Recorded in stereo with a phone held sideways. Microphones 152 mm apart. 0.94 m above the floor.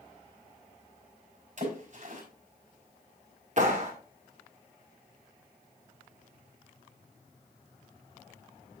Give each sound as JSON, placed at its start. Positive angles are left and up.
{"t": 1.6, "sound": "a splash", "side_deg": -55, "distance_m": 5.0}
{"t": 3.6, "sound": "a clap", "side_deg": -50, "distance_m": 2.5}